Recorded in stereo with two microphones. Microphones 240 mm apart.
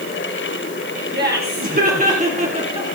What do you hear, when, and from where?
1.1 s laughter: 45° right (ahead or behind), 3 m; by 2.9 s 20° right (ahead or behind), 2.5 m